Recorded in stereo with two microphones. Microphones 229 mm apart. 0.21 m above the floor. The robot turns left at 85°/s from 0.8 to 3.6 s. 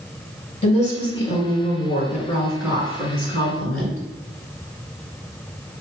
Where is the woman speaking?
150° left, 2 m; by 4.0 s 90° right, 2 m.